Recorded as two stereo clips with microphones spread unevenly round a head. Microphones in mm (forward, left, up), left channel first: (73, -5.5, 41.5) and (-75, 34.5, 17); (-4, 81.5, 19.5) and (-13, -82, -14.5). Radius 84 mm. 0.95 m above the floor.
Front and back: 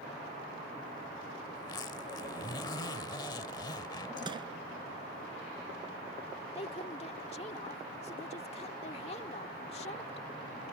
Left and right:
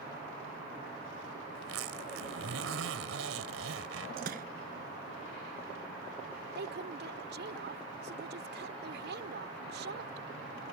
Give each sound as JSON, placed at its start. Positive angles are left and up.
{"t": 1.6, "sound": "a zipper", "azimuth_deg": -80}
{"t": 4.2, "sound": "crushing", "azimuth_deg": -130}
{"t": 6.5, "sound": "a woman speaking", "azimuth_deg": -70}